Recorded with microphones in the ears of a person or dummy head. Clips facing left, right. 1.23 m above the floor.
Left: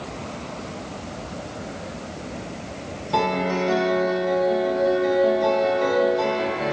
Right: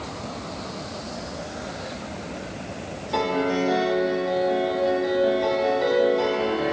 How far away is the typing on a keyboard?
No typing on a keyboard in this recording.